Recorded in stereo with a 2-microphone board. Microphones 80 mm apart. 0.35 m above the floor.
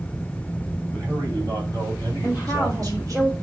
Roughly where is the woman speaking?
Right.